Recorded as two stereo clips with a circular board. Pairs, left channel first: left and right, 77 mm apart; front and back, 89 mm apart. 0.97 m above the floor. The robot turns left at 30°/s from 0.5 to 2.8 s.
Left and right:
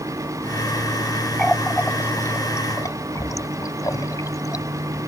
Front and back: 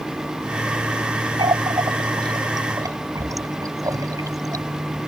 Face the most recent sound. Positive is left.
turn(degrees=130)